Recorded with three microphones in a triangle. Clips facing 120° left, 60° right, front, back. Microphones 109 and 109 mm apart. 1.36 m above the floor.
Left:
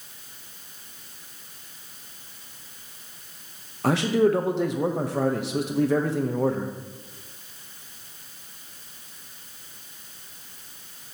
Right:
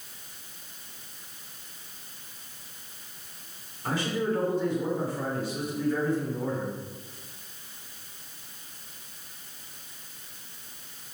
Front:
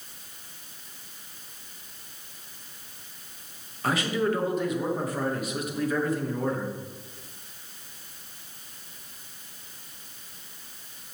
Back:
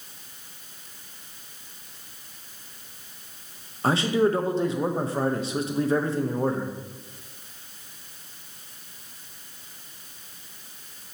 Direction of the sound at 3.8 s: 120° left.